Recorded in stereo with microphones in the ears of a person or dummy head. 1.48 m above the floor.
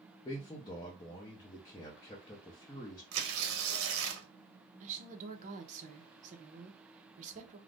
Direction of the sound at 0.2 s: 20° left (ahead or behind).